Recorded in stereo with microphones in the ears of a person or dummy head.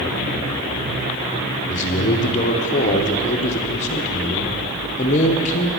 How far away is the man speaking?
About 1.0 m.